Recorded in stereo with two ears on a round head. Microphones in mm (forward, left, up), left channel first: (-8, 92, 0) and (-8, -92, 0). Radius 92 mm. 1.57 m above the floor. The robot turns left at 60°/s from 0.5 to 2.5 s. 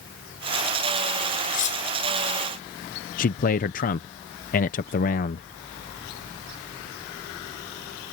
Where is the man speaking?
40° left (ahead or behind).